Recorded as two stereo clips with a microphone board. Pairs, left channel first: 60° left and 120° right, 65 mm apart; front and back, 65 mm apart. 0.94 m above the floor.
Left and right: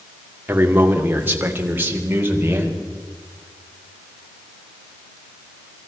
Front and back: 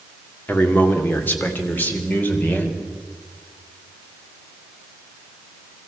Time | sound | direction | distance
0.5 | a man speaking | 60° right | 2.5 m